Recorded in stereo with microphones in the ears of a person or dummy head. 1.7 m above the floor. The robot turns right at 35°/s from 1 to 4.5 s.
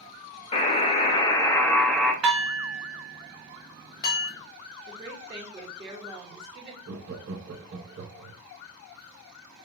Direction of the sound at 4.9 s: 20° right (ahead or behind).